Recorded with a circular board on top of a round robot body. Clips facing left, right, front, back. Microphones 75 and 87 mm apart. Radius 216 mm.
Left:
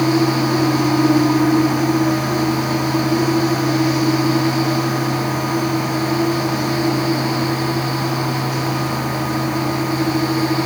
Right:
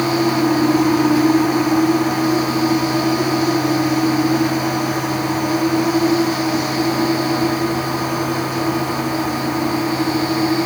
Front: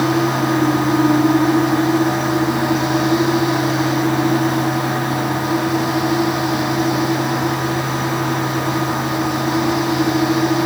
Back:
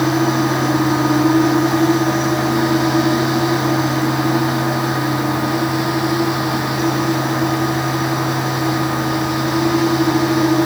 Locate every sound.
Only background noise.